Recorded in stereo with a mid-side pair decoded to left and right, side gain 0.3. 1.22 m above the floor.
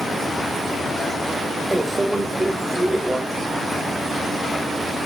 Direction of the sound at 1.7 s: 10° right.